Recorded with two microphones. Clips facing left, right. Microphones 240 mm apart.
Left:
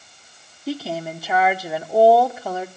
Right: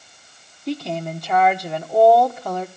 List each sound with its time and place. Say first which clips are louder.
0.7 s a woman speaking: right 1 dB; 5° left (ahead or behind), 1.1 m